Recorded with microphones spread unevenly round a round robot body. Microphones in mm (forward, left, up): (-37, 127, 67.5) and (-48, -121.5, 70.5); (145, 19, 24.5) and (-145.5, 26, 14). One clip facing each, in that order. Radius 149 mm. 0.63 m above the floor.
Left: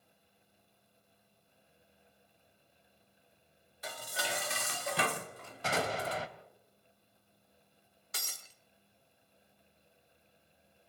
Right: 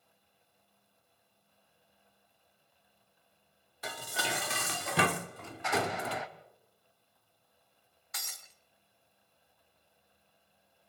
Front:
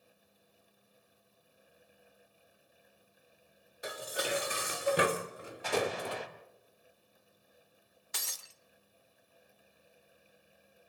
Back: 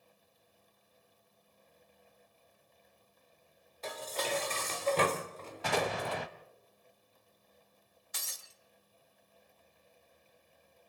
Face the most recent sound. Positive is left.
turn(degrees=30)